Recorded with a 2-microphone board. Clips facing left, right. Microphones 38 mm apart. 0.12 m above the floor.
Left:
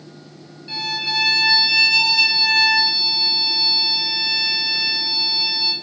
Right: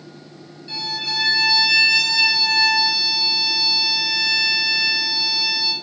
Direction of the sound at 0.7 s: 20° left (ahead or behind).